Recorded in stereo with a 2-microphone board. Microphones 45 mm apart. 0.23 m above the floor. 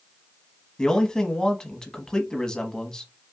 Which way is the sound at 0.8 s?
20° left (ahead or behind).